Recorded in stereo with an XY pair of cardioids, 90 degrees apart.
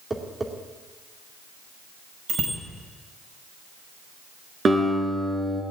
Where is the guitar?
50° right, 4.5 m.